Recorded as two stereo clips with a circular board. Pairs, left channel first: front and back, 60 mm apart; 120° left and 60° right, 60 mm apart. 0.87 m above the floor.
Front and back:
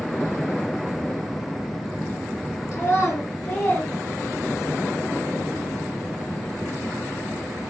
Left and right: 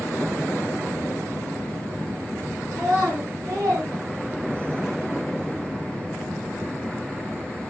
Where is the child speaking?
35° right, 1.5 m; by 4.8 s 115° right, 0.7 m.